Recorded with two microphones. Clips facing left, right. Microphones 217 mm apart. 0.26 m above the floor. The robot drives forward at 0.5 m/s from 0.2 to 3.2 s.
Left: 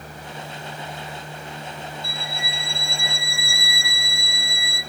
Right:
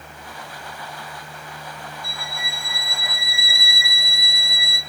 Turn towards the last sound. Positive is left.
turn(degrees=-40)  # may be behind; listen again after turning